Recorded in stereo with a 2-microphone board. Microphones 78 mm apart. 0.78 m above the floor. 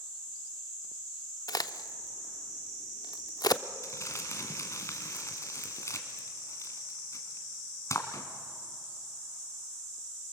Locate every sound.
1.5 s a crack: 60° left (ahead or behind), 0.6 m
3.8 s crumpling: 40° left (ahead or behind), 2.0 m